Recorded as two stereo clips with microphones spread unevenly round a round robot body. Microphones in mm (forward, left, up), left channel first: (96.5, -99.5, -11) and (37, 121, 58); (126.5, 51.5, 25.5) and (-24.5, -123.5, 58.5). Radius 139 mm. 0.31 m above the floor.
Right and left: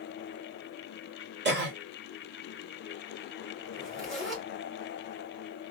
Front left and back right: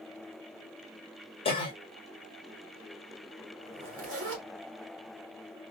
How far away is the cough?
About 1.3 m.